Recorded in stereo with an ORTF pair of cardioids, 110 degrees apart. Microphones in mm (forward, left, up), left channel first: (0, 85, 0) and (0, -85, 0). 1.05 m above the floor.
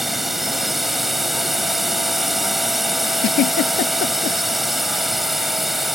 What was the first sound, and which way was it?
A drone, straight ahead.